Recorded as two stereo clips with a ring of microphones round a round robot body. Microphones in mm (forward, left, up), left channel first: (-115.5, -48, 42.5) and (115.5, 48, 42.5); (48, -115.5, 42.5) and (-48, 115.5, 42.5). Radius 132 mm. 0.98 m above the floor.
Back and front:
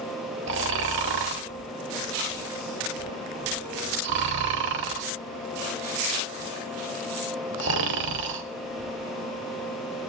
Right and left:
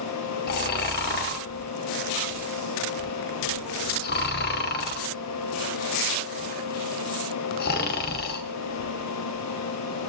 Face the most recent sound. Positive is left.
turn(degrees=-15)